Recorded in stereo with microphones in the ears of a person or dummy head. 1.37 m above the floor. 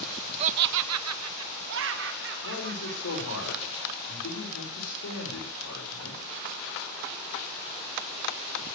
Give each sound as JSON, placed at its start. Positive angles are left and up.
{"t": 0.4, "sound": "laughter", "side_deg": -25, "distance_m": 0.6}
{"t": 2.4, "sound": "a man speaking", "side_deg": 75, "distance_m": 5.5}